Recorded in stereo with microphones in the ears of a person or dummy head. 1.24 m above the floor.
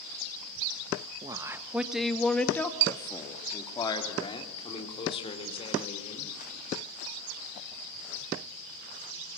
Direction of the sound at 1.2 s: 20° right (ahead or behind).